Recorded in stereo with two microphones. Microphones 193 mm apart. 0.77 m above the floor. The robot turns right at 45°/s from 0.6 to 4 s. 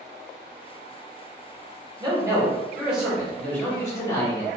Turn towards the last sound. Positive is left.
turn(degrees=15)  # may be behind; listen again after turning